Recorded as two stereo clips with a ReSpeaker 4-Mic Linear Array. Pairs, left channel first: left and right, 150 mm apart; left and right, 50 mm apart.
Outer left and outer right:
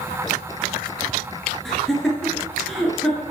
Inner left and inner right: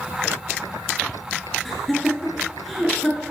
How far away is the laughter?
About 2.5 m.